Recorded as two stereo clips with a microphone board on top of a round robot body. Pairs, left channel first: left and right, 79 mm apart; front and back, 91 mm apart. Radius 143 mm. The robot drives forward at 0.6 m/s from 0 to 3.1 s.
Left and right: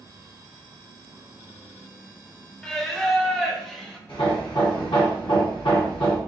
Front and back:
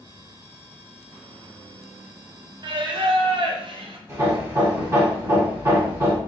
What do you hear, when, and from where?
2.6 s singing: 170° left, 0.7 m; by 4.0 s 175° left, 0.9 m
4.1 s hammering: 120° left, 1.7 m